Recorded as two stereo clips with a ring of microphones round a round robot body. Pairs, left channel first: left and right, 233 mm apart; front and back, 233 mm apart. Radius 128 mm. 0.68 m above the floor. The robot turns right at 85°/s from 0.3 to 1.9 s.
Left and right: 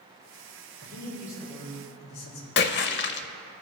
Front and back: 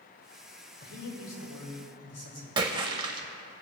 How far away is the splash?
About 0.5 m.